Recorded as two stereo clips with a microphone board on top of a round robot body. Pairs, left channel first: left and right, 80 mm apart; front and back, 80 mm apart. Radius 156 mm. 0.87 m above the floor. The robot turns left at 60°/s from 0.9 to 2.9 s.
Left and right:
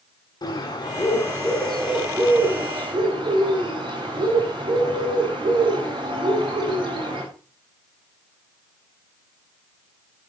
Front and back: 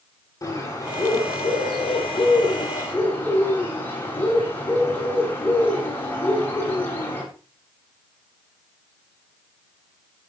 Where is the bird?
55° left, 9.5 m; by 7.2 s 65° right, 9.5 m.